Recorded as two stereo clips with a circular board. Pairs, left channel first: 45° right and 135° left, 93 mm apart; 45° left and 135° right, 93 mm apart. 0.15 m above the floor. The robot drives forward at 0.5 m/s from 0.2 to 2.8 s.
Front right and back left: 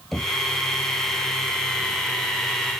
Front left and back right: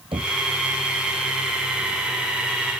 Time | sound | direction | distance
0.1 | knocking | 135° right | ?